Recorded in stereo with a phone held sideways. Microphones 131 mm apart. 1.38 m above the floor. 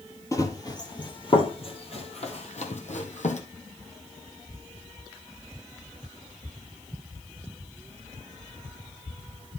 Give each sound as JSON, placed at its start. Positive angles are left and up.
{"t": 0.3, "sound": "running footsteps", "side_deg": 25, "distance_m": 2.0}